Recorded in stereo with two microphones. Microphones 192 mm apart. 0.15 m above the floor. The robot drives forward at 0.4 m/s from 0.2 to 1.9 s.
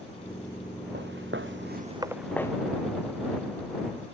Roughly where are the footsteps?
Right.